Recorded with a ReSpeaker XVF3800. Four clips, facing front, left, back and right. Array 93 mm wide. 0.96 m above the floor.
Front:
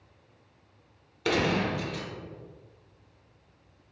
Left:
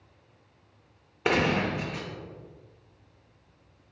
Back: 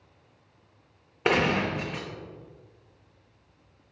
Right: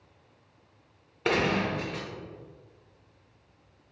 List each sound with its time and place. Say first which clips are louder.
1.2 s a gunshot: left 1 dB, back 2 dB; 165° left, 0.7 m